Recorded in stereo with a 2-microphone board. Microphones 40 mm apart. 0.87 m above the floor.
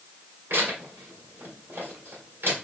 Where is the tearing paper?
90° right, 2 m.